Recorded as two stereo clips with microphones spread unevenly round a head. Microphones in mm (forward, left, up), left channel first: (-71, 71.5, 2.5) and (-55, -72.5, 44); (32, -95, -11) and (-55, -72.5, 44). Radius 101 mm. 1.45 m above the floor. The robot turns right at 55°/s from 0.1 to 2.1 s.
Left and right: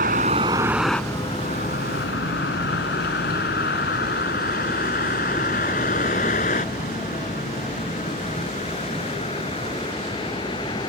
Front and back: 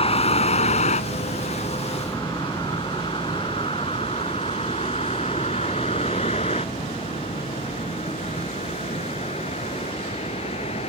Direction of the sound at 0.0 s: 35° right.